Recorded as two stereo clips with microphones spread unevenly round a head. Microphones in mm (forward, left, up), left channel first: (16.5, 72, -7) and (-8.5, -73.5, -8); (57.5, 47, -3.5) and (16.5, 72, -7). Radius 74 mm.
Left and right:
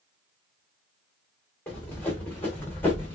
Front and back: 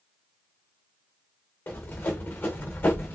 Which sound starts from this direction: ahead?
Running footsteps, at 1.7 s.